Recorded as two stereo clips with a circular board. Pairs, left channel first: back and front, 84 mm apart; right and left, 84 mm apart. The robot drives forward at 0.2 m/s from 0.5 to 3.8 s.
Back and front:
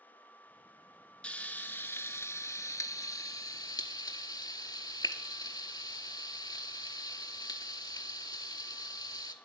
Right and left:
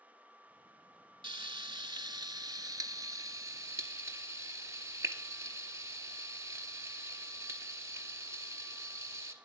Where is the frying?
105° left, 0.5 m; by 9.3 s 140° left, 0.8 m.